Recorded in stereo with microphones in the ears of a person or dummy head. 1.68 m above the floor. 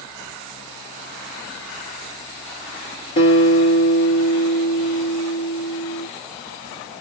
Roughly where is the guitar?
Left.